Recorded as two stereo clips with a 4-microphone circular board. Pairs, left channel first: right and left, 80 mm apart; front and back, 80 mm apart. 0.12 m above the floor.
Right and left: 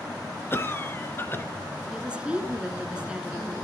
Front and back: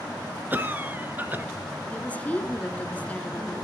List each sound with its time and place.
0.5 s a cough: 130° right, 1.4 m
1.9 s a woman speaking: 35° left, 1.1 m